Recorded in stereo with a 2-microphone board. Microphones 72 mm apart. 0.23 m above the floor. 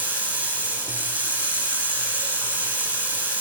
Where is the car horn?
I don't hear a car horn.